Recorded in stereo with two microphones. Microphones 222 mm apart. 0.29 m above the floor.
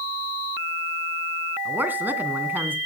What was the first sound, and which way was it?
A woman speaking, 10° right (ahead or behind).